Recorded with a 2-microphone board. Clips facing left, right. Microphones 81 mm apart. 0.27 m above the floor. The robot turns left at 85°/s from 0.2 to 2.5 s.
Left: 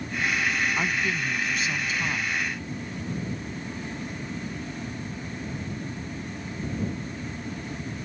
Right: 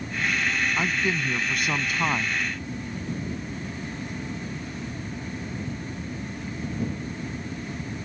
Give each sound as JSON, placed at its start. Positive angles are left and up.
{"t": 0.8, "sound": "a man speaking", "azimuth_deg": -5}